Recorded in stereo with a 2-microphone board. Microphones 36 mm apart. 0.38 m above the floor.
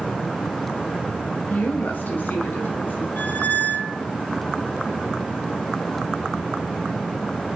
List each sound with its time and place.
1.5 s a woman speaking: 55° left (ahead or behind), 2.0 m; by 3.1 s 65° left (ahead or behind), 3 m
3.2 s a squeak: 50° left (ahead or behind), 0.6 m